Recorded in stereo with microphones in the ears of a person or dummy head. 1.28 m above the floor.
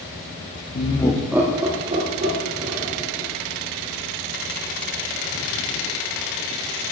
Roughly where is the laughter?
Left.